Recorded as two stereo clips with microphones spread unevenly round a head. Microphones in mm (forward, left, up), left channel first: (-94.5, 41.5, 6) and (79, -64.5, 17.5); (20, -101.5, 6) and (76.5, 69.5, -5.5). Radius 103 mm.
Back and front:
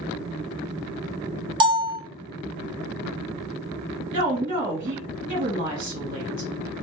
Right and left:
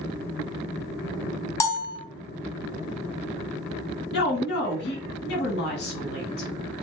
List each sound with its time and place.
1.6 s a bell: 60° right, 0.6 m
4.1 s a woman speaking: 95° right, 1.2 m